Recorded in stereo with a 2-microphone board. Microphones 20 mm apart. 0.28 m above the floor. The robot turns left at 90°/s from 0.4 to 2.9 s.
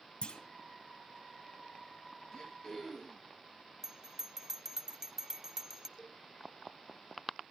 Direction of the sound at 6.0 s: 35° left (ahead or behind).